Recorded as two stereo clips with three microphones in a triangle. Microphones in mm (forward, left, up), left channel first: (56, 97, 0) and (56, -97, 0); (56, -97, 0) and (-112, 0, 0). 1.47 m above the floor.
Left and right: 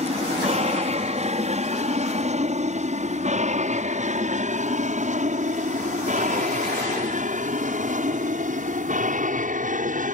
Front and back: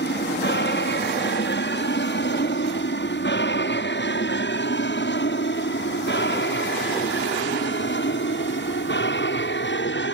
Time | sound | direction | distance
0.0 | an aircraft | 35° right | ?